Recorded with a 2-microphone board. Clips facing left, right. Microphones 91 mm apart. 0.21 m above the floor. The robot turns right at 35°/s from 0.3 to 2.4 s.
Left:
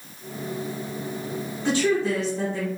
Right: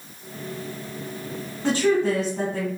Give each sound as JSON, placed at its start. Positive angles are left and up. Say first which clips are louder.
{"t": 1.6, "sound": "a woman speaking", "louder": "right 2 dB", "side_deg": -35, "distance_m": 1.9}